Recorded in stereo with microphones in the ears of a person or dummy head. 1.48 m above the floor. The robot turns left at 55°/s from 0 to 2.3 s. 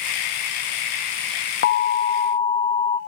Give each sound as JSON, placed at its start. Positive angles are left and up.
{"t": 1.6, "sound": "an alarm", "azimuth_deg": 75, "distance_m": 1.2}